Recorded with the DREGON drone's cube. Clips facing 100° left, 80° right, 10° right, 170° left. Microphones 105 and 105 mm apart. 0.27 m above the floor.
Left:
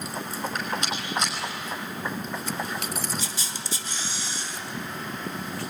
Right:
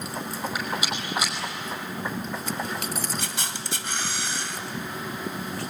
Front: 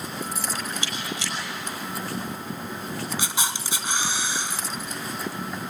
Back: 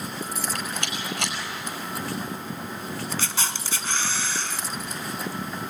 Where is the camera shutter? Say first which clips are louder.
Right 2 dB, front 1 dB; 85° right, 1.2 m.